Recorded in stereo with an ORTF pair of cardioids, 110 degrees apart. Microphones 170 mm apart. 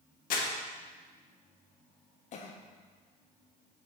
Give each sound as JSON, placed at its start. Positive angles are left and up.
{"t": 0.3, "sound": "crumpling", "azimuth_deg": 55, "distance_m": 1.1}
{"t": 2.3, "sound": "a cough", "azimuth_deg": 45, "distance_m": 0.6}